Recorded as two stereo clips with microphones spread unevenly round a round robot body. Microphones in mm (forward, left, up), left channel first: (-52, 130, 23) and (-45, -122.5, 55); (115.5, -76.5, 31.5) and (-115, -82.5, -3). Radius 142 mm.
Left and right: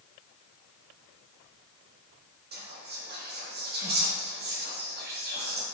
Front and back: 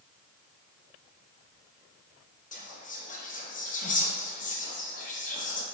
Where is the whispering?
50° right, 0.8 m.